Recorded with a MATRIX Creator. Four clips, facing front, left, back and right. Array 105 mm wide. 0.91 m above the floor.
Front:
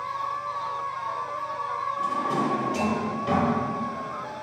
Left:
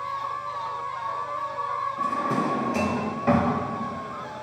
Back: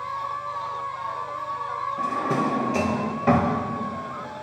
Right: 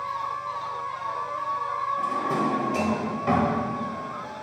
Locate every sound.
2.0 s a drawer: 170° left, 0.8 m